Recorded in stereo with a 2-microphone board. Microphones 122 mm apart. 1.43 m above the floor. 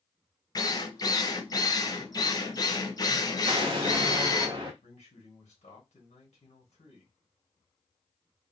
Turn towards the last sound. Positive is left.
turn(degrees=80)